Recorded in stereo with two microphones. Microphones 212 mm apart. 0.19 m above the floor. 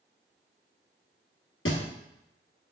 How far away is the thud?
About 1.0 m.